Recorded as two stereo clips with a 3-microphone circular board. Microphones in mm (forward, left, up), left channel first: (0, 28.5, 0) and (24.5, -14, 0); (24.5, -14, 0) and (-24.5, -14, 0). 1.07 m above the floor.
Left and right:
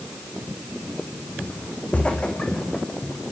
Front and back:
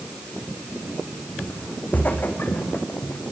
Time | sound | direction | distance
1.4 | footsteps | 65° left | 3.5 m